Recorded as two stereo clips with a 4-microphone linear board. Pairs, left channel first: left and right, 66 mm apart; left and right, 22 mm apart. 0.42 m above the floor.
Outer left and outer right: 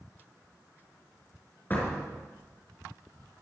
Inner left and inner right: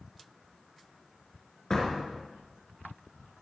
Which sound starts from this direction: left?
A door slam, at 1.7 s.